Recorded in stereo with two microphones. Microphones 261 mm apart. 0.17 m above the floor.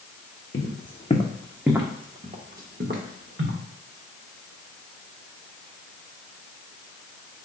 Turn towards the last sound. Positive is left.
turn(degrees=-55)  # may be behind; listen again after turning